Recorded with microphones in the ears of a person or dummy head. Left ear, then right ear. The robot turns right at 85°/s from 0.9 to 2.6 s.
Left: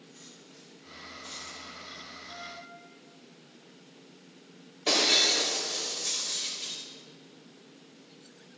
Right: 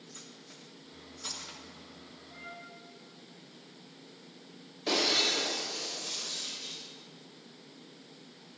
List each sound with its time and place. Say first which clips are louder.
0.1 s cutlery clinking: right 1 dB; 60° right (ahead or behind), 3 m; by 1.6 s 55° right (ahead or behind), 3 m
2.3 s a flute: left 2 dB; 10° left (ahead or behind), 5.5 m; by 2.6 s 15° right (ahead or behind), 5.5 m
4.9 s breaking glass: left 4 dB; 15° left (ahead or behind), 4 m